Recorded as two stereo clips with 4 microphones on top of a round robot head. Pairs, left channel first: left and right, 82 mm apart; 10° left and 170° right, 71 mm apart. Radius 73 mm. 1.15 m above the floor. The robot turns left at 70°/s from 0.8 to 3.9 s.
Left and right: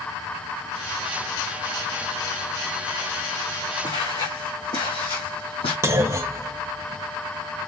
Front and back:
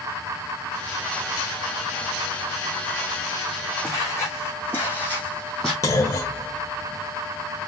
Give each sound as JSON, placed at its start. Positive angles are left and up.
{"t": 3.8, "sound": "footsteps", "azimuth_deg": 65, "distance_m": 4.0}
{"t": 5.8, "sound": "a clunk", "azimuth_deg": -35, "distance_m": 0.8}